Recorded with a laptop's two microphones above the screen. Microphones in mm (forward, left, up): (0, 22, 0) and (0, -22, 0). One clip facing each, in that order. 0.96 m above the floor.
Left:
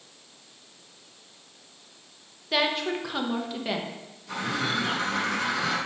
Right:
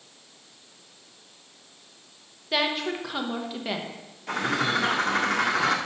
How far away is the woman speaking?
About 0.9 m.